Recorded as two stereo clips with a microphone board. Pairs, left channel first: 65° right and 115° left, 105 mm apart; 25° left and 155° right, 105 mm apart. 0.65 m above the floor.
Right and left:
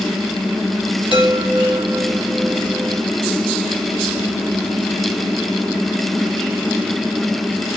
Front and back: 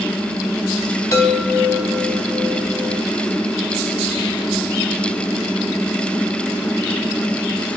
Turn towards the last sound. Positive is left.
turn(degrees=80)